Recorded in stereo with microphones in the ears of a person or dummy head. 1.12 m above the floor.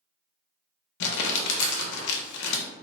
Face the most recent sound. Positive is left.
turn(degrees=70)  # may be behind; listen again after turning